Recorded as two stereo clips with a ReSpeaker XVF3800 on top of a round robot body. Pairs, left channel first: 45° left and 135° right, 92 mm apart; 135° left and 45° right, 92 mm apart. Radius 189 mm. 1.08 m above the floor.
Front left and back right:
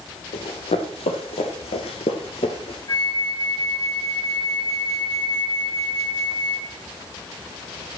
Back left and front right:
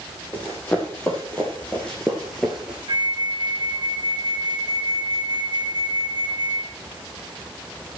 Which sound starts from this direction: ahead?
A flute, at 2.9 s.